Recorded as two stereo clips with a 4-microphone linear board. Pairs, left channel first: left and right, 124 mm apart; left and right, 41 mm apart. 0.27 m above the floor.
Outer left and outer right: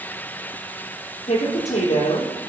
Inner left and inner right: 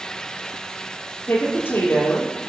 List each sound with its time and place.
1.3 s a woman speaking: 70° left (ahead or behind), 5.5 m